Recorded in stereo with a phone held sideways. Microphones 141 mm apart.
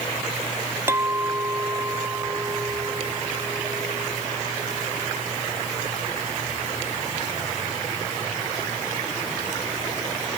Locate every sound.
0.9 s a clink: 20° right (ahead or behind)